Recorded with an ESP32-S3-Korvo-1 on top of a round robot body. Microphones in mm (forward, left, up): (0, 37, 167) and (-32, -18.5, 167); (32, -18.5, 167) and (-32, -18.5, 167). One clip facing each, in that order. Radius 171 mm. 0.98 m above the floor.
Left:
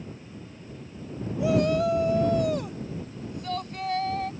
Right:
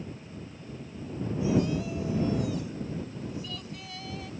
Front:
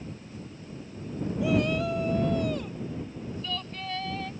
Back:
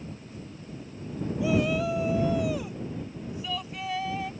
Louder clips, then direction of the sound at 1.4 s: Left 5 dB, back 1 dB; 95° left.